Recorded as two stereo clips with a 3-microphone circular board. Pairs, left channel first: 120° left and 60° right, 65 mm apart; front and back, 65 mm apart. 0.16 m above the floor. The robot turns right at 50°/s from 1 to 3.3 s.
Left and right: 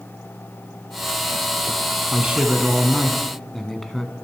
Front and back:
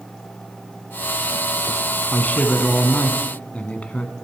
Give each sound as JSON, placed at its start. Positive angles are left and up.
{"t": 2.1, "sound": "a man speaking", "azimuth_deg": -20, "distance_m": 1.3}